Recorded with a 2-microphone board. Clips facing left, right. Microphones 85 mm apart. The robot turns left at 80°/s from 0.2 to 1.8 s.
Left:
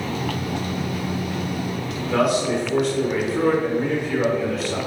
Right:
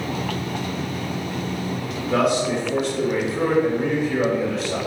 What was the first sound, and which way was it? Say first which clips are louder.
A man speaking: even; centre (ahead or behind).